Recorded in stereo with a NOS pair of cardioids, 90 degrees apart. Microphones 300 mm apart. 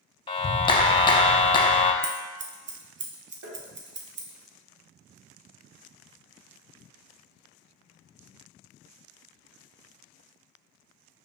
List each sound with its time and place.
0.3 s a clap: 15° left, 0.5 m
2.0 s scissors: 35° right, 0.8 m
3.4 s tapping: 60° right, 1.3 m